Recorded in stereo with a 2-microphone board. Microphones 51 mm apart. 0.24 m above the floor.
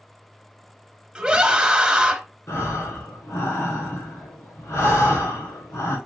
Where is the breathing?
80° left, 2.5 m.